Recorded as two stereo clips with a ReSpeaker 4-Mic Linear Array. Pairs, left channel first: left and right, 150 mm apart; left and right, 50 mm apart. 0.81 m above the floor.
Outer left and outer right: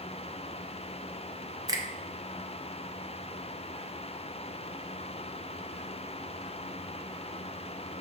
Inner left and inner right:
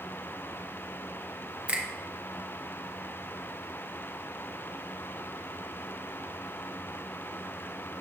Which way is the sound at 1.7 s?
25° right (ahead or behind).